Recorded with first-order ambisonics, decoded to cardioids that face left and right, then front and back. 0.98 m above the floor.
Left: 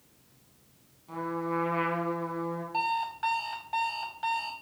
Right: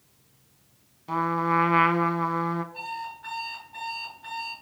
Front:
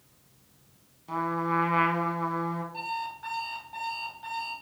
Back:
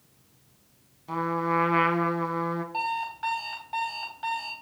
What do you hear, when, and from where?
1.1 s a trumpet: 105° right, 1.1 m
2.7 s an alarm clock: 120° left, 4 m